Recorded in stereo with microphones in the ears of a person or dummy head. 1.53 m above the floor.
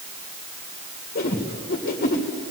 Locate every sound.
1.1 s a whoosh: 40° left (ahead or behind), 2.0 m